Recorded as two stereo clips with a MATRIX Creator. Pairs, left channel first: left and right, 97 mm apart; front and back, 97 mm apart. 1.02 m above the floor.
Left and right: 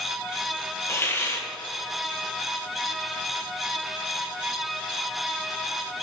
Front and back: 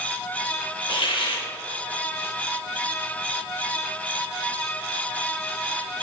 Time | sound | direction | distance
0.9 | a hiss | 25° left | 1.4 m